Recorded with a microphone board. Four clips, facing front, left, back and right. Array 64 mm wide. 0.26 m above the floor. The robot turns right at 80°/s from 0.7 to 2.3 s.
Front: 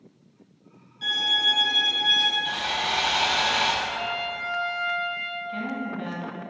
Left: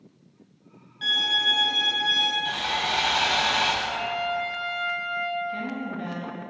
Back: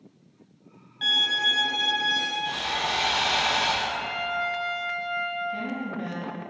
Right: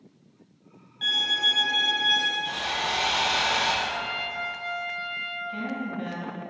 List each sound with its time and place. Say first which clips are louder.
1.0 s a violin: left 2 dB, back 1 dB; 175° right, 1.1 m; by 2.4 s 70° right, 1.1 m
2.5 s sawing: left 2 dB, front 1 dB; 45° left, 0.7 m
3.8 s a trumpet: left 3 dB, even; 5° right, 1.8 m
5.5 s a woman speaking: even, even; 15° right, 1.2 m